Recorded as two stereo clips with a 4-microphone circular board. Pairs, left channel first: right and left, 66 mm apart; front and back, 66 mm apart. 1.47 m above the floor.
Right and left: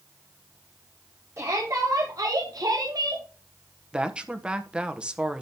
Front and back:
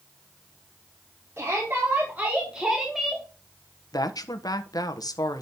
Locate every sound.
1.4 s a shout: 130° left, 3.5 m; by 3.2 s 85° left, 2.5 m
3.9 s a woman speaking: 15° left, 1.4 m